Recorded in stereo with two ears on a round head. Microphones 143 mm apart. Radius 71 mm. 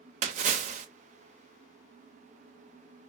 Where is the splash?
45° right (ahead or behind), 0.6 m.